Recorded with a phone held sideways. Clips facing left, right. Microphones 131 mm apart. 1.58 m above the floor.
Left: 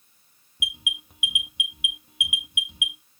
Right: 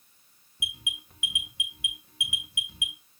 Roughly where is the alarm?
Centre.